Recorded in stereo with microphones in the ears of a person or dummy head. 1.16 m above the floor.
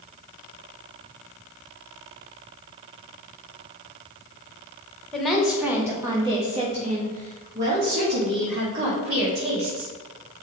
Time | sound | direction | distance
5.1 | a woman speaking | centre (ahead or behind) | 1.3 m